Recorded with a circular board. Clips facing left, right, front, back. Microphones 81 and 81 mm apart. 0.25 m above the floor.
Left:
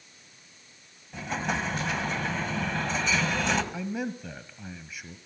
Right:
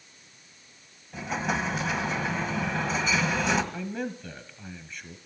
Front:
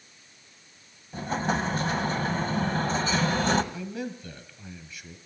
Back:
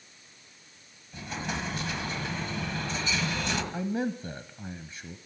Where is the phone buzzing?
I don't hear a phone buzzing.